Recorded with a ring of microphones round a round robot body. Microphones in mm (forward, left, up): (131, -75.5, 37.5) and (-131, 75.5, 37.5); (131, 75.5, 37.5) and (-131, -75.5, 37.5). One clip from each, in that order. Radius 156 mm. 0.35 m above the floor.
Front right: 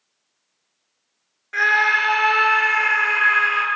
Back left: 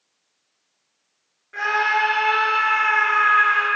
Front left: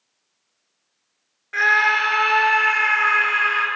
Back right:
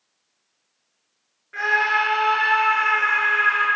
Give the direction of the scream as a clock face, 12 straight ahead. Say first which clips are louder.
Front right 3 dB, front left 3 dB; 12 o'clock.